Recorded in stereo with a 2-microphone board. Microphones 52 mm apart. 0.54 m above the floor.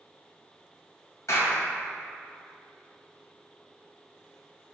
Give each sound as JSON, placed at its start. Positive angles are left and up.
{"t": 1.3, "sound": "a clap", "side_deg": 75, "distance_m": 2.5}